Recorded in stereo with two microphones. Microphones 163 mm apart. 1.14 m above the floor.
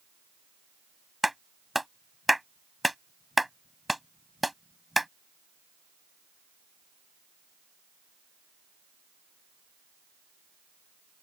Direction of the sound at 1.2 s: Centre (ahead or behind).